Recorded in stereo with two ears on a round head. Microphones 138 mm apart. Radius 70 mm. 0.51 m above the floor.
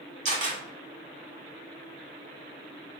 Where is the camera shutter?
50° right (ahead or behind), 1.4 m.